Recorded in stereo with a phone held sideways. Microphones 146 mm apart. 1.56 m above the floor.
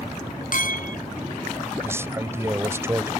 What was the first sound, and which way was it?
A clink, 70° left (ahead or behind).